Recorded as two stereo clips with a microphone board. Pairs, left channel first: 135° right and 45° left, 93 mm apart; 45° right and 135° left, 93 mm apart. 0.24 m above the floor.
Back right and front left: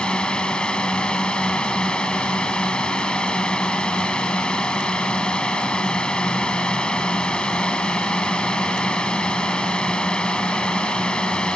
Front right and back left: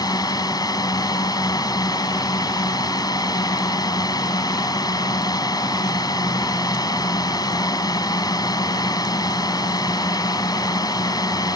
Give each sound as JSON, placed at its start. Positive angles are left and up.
{"t": 0.0, "sound": "a drone", "azimuth_deg": -60}